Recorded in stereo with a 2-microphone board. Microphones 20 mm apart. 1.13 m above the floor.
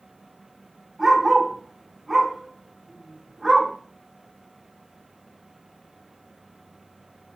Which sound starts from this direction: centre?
A dog barking, at 1.0 s.